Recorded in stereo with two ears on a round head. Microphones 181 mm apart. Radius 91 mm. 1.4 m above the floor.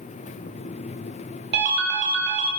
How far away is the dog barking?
No dog barking in this recording.